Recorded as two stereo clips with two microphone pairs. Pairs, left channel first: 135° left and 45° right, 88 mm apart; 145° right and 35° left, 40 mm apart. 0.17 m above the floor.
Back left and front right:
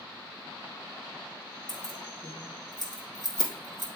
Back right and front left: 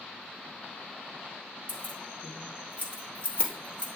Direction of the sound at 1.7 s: 175° left.